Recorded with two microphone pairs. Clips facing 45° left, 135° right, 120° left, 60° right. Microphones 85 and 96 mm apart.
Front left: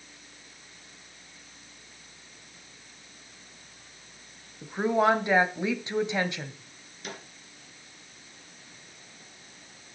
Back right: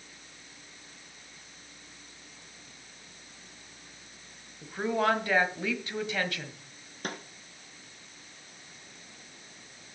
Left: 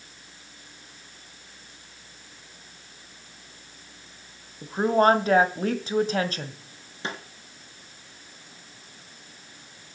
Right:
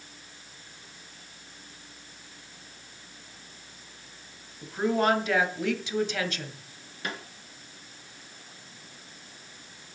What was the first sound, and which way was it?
A woman speaking, 100° left.